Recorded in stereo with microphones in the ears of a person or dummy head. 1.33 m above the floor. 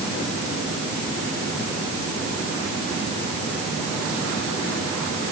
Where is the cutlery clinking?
No cutlery clinking in this recording.